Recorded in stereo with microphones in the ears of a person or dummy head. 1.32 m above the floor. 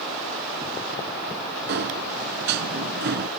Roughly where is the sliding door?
Right.